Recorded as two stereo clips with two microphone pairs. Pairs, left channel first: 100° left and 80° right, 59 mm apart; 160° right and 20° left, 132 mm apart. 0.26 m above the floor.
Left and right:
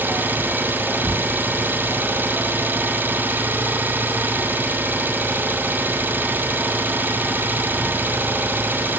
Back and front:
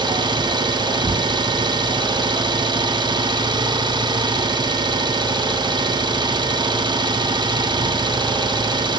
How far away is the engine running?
About 2 m.